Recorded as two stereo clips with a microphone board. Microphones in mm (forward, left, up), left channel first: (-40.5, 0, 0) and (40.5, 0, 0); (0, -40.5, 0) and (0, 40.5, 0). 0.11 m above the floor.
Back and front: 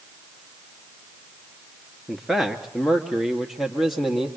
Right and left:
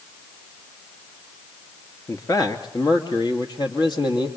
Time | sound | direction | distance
2.1 | a man speaking | 90° right | 1.5 m